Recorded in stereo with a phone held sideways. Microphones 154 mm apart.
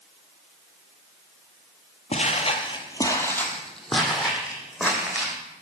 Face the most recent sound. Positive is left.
turn(degrees=-10)  # may be behind; listen again after turning